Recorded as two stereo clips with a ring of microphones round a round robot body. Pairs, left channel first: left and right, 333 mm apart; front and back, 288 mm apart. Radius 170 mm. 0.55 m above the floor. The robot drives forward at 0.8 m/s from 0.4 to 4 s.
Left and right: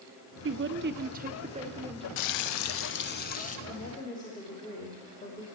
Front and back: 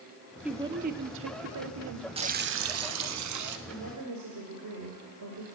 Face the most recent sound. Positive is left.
turn(degrees=165)